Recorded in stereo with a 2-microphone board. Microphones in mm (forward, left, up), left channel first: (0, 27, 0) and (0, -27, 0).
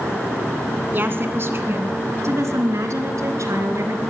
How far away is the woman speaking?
About 1.9 m.